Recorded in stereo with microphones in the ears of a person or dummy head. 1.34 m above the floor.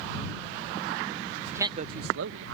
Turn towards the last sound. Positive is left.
turn(degrees=-80)